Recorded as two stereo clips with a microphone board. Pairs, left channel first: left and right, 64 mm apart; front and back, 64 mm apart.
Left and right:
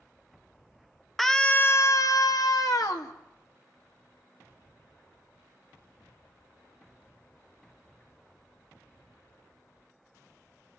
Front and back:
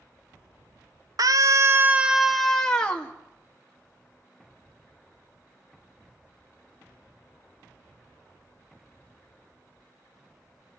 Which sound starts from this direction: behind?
A scream, at 1.2 s.